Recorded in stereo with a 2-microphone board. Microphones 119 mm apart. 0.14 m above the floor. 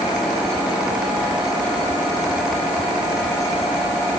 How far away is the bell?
I don't hear a bell.